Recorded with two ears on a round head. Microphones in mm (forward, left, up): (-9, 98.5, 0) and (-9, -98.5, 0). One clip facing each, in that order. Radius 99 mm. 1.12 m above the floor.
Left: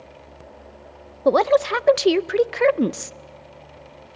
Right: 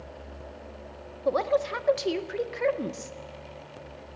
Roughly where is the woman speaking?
Left.